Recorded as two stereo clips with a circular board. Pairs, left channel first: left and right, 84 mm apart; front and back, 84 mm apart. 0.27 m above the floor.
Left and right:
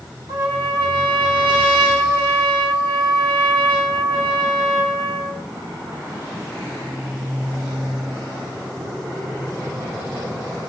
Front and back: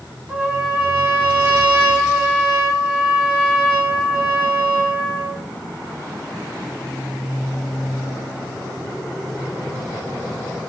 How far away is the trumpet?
About 1.2 m.